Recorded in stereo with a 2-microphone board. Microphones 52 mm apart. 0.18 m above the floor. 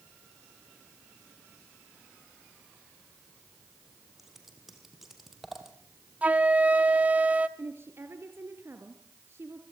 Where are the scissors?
5° right (ahead or behind), 4.5 m.